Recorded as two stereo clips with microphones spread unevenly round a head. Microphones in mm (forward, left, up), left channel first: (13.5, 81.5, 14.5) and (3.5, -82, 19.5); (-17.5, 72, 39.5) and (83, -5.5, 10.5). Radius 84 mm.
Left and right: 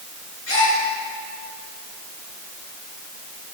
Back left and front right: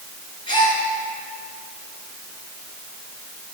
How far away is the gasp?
About 5.5 m.